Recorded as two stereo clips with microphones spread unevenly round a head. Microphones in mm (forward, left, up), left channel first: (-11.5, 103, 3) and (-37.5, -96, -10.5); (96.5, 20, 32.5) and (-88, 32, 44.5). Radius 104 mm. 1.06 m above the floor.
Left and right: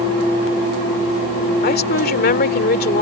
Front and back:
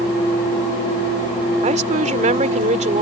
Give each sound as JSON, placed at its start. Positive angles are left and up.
{"t": 1.6, "sound": "a woman speaking", "azimuth_deg": 125}